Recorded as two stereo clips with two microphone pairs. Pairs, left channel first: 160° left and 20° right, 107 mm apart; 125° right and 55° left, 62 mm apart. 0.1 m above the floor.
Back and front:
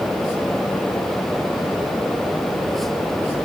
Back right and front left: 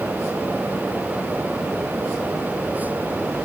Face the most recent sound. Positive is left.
No sound to turn to.